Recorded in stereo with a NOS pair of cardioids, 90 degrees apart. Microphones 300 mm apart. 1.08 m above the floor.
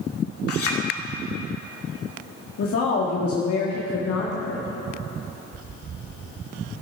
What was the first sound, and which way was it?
A clink, 50° left.